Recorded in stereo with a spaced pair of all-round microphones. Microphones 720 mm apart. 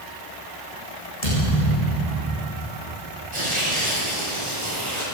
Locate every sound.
1.2 s a thud: 55° left (ahead or behind), 9.5 m
3.3 s tearing paper: 60° right (ahead or behind), 9 m